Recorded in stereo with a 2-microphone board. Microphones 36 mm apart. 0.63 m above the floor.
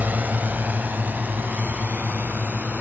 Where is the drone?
60° right (ahead or behind); by 2.8 s 65° right (ahead or behind).